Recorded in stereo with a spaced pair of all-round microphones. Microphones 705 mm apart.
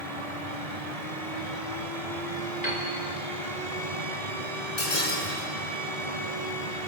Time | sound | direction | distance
0.0 | a fan | 55° right (ahead or behind) | 1.7 m
2.6 | a piano | 70° left (ahead or behind) | 4 m
4.8 | breaking glass | 70° left (ahead or behind) | 5 m